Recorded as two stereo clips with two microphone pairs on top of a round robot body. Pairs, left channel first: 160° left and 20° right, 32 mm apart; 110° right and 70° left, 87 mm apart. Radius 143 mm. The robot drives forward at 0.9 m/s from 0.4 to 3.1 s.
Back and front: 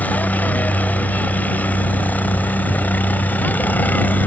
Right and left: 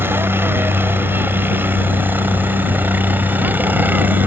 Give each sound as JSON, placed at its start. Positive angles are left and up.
{"t": 0.0, "sound": "a helicopter", "azimuth_deg": 140}